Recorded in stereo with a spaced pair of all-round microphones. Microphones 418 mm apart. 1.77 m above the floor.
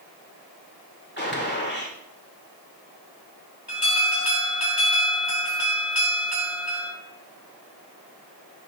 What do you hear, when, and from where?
1.2 s a gunshot: 25° left (ahead or behind), 2.5 m
3.7 s an alarm: 55° right (ahead or behind), 5 m